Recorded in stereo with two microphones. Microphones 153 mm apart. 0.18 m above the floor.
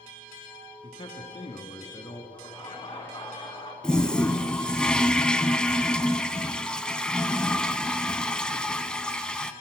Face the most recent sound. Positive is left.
turn(degrees=5)  # may be behind; listen again after turning